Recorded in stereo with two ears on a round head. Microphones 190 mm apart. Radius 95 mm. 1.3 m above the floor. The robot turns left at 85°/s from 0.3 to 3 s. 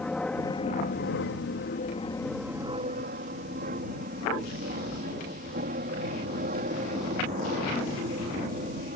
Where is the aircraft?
5° left (ahead or behind); by 9.0 s 40° right (ahead or behind).